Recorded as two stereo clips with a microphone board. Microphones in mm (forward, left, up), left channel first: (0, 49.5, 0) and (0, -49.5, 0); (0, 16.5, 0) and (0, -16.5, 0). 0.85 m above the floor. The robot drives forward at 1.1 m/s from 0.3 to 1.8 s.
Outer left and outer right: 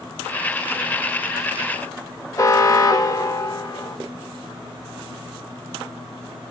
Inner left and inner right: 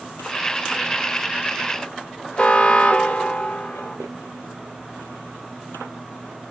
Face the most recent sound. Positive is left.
turn(degrees=35)  # may be behind; listen again after turning